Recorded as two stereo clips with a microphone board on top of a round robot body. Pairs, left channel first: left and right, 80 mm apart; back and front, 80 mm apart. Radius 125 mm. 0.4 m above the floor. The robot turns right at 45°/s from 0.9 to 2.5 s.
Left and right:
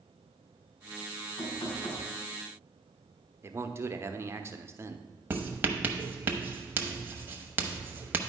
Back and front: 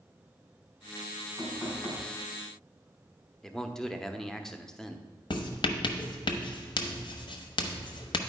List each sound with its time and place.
1.4 s knocking: 55° left, 4 m; by 2.1 s 85° left, 4 m
3.4 s a man speaking: 100° right, 0.9 m
5.3 s writing: 155° right, 0.9 m